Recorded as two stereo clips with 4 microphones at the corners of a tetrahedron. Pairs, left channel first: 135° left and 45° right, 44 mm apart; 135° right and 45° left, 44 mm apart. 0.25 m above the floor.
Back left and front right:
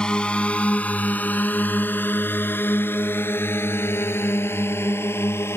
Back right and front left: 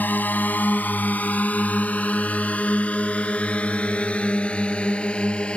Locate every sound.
0.0 s a drone: 160° right; by 5.6 s 160° left